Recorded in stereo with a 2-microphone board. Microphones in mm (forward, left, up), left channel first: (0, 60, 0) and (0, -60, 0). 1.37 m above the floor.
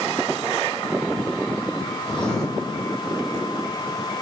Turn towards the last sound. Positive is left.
turn(degrees=5)  # may be behind; listen again after turning